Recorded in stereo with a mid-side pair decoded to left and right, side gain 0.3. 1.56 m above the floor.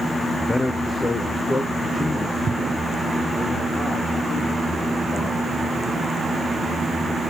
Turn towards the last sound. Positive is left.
turn(degrees=50)